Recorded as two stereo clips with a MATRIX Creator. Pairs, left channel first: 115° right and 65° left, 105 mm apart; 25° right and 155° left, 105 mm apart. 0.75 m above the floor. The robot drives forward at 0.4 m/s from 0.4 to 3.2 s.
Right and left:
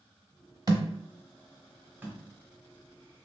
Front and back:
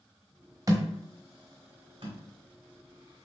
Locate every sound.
0.7 s a thud: 105° left, 0.8 m; by 2.2 s 140° left, 1.1 m